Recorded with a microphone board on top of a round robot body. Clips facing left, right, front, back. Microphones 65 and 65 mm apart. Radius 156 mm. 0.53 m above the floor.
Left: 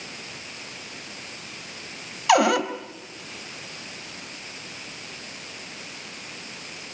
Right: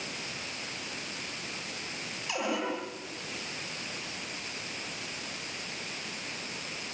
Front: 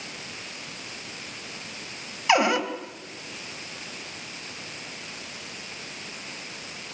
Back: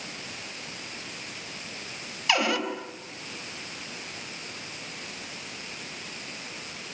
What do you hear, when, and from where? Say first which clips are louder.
2.3 s a cupboard door: left 14 dB, front 5 dB; 65° left, 2.5 m